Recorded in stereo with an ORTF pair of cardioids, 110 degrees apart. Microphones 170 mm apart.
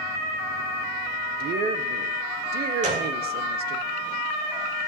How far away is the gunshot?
About 3 m.